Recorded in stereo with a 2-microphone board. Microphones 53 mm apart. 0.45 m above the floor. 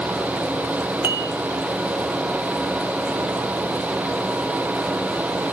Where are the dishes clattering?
45° right (ahead or behind), 1.3 m.